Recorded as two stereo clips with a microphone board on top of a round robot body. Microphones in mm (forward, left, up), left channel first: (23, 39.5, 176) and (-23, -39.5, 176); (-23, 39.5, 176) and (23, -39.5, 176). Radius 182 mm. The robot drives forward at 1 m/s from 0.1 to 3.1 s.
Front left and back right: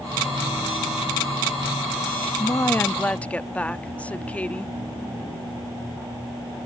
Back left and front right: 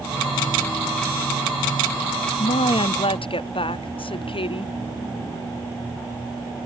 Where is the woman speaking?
110° left; by 4.8 s 135° left.